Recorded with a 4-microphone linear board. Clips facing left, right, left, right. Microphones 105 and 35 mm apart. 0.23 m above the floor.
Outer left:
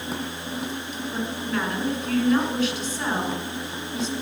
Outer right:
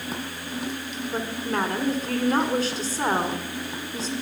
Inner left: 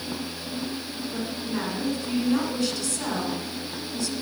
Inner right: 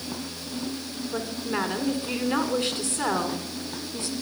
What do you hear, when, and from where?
1.1 s a woman speaking: 35° right (ahead or behind), 1.9 m